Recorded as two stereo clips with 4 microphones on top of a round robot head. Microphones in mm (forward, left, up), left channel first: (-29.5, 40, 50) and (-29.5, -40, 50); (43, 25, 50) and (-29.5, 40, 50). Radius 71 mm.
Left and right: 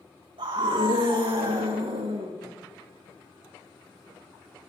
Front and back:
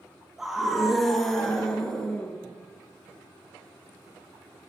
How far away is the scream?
About 3.5 m.